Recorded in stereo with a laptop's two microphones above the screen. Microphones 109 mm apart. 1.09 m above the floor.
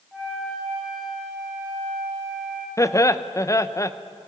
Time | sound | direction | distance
0.1 | a flute | centre (ahead or behind) | 9.5 m
2.8 | laughter | 30° left (ahead or behind) | 0.8 m